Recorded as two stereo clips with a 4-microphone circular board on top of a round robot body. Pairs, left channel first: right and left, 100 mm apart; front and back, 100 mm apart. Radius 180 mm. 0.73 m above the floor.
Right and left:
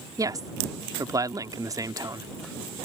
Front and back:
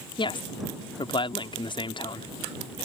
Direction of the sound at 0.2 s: 35° left.